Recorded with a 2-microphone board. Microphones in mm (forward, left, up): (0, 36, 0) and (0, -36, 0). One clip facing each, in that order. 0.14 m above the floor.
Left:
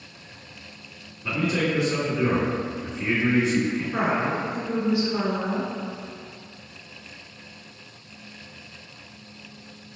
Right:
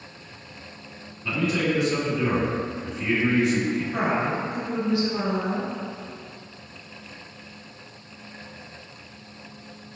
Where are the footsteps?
I don't hear footsteps.